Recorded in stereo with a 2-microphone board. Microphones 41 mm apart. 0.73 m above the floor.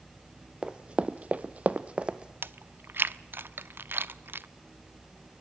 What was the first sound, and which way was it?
Running footsteps, 25° right (ahead or behind).